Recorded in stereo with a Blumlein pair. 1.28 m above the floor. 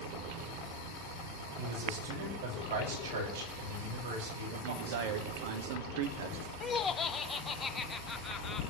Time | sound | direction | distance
1.6 | a man speaking | 55° right | 7 m
4.5 | a man speaking | 50° right | 2.5 m
6.6 | laughter | 20° left | 0.8 m